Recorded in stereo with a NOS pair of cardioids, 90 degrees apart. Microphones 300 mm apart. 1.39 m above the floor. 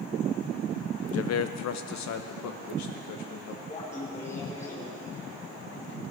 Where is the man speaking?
55° left, 0.8 m; by 3.6 s 75° left, 2.5 m.